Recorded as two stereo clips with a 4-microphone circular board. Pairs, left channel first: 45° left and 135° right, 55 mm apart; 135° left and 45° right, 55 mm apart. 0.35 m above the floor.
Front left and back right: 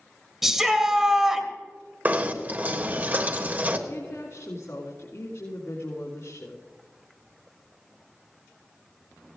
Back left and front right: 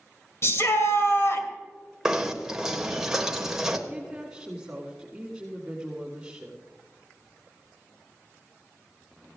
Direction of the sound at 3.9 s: 30° left.